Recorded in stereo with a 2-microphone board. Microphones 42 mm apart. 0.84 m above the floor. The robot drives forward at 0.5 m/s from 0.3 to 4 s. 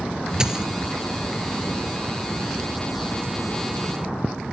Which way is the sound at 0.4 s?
20° right (ahead or behind).